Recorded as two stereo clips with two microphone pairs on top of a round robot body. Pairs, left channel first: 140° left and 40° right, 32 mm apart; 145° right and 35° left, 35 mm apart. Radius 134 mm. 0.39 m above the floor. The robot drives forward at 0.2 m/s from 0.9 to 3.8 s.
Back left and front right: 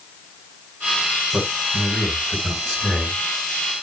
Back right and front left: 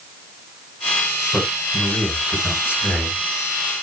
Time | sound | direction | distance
1.3 | a man speaking | 140° right | 3.5 m